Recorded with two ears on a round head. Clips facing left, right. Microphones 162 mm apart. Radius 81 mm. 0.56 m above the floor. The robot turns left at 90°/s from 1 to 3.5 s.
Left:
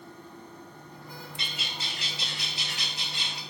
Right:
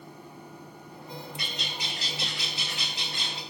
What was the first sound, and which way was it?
A bird, 25° left.